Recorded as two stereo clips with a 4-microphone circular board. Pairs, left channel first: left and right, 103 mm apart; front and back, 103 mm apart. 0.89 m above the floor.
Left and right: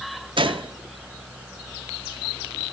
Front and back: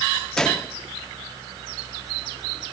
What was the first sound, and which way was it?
A gunshot, 85° right.